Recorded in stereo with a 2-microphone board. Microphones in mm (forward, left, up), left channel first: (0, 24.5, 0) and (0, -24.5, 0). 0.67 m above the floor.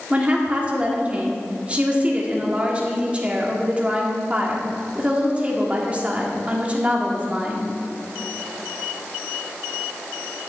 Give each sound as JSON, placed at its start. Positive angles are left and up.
{"t": 0.1, "sound": "a woman speaking", "side_deg": -25, "distance_m": 1.5}